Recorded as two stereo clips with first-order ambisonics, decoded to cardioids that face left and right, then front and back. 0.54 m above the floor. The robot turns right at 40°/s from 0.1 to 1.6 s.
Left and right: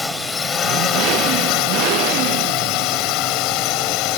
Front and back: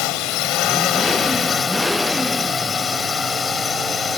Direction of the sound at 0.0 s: 10° left.